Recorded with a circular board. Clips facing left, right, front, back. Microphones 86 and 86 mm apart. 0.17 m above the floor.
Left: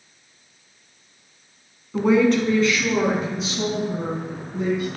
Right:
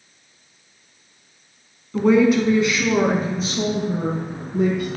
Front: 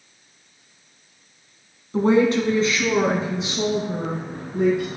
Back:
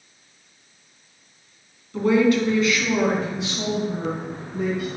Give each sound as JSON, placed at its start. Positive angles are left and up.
{"t": 1.9, "sound": "a woman speaking", "azimuth_deg": 20, "distance_m": 1.4}